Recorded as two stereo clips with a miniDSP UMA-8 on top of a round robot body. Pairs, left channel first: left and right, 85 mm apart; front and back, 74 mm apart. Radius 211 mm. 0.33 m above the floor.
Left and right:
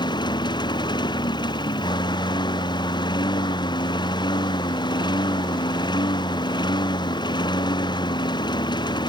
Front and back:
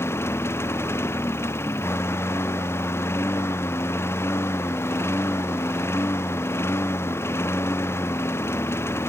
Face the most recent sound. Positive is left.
turn(degrees=55)